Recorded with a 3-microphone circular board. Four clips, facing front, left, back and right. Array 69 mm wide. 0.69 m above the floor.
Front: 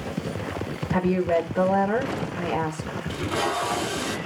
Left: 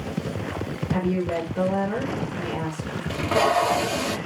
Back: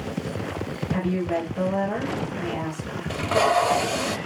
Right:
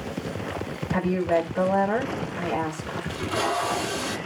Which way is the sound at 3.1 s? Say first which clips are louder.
Left 6 dB, back 6 dB; 130° left.